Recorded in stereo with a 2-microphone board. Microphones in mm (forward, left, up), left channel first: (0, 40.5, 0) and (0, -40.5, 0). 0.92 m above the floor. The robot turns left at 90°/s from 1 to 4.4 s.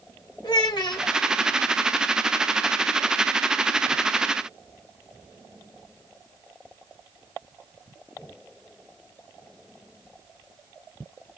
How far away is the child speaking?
About 1.4 m.